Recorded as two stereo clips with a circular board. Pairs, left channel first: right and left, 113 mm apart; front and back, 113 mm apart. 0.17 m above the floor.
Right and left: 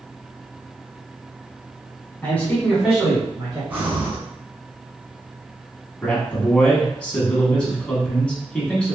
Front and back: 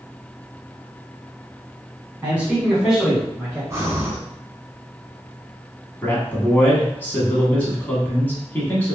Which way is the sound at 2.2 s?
125° right.